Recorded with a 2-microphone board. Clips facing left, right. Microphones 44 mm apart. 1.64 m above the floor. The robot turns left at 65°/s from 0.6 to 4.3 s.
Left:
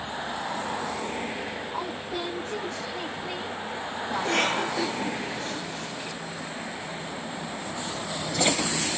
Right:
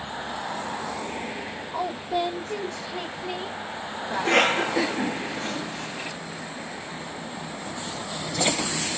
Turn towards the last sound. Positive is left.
turn(degrees=-65)  # may be behind; listen again after turning